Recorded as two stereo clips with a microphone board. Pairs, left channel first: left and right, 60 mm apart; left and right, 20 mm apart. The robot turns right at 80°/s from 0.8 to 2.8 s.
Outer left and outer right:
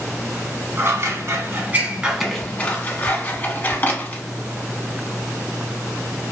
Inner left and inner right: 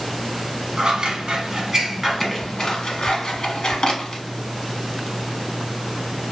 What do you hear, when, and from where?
0.8 s scissors: 45° right (ahead or behind), 0.7 m; by 4.2 s 35° left (ahead or behind), 0.7 m